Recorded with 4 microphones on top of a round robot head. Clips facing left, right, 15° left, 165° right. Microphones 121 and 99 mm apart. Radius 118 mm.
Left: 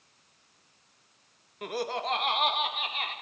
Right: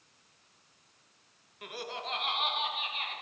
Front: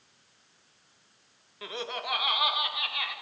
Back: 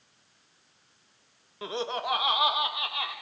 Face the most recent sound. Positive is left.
turn(degrees=135)